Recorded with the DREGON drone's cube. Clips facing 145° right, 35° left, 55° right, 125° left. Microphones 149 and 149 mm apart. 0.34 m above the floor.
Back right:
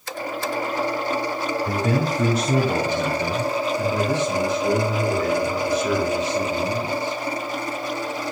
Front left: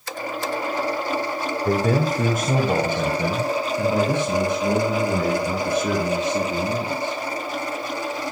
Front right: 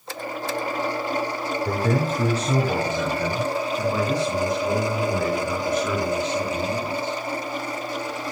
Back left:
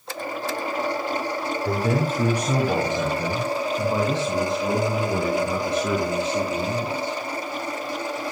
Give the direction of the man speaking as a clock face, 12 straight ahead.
11 o'clock.